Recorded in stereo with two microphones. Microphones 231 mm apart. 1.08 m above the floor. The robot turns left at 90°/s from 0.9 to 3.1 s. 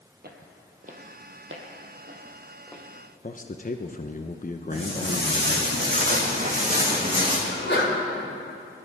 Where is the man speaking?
40° left (ahead or behind), 0.7 m.